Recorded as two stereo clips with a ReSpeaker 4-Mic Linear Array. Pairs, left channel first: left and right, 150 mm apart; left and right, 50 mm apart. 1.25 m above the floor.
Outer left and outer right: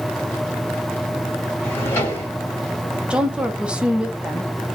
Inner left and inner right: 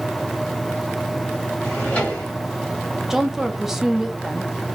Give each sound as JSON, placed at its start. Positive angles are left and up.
{"t": 1.6, "sound": "a drawer", "side_deg": 15, "distance_m": 1.8}
{"t": 3.1, "sound": "a woman speaking", "side_deg": -5, "distance_m": 0.6}